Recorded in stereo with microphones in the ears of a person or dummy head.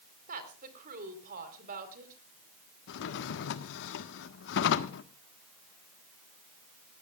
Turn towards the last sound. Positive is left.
turn(degrees=70)  # may be behind; listen again after turning